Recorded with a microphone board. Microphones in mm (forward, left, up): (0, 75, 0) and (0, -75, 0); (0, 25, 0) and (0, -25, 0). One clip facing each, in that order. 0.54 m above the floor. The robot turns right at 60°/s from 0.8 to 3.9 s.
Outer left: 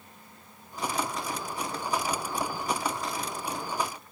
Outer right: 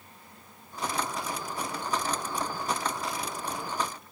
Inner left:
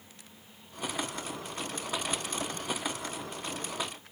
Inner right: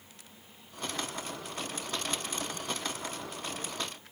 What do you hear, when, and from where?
Only background noise.